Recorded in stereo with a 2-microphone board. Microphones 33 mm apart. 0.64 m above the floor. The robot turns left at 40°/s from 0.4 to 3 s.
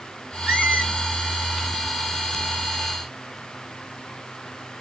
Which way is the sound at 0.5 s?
55° right (ahead or behind).